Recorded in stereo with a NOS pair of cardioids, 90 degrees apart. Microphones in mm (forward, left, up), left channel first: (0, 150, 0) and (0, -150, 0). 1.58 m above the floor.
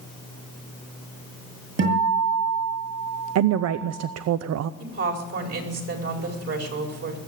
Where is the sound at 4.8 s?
50° right, 4.5 m.